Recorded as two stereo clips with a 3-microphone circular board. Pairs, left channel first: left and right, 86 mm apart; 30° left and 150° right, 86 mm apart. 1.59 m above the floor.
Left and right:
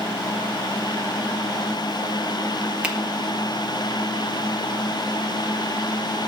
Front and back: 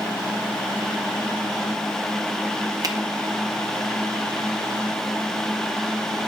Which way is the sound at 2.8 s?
165° right.